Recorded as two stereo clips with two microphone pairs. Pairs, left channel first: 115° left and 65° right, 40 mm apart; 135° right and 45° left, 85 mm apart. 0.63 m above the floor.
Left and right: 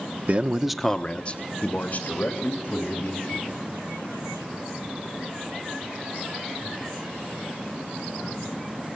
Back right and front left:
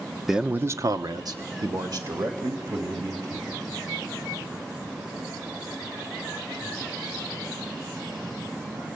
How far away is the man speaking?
About 1.0 m.